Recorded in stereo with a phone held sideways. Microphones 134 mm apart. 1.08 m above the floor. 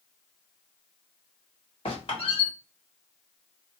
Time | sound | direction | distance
1.9 | a squeak | 45° left (ahead or behind) | 2 m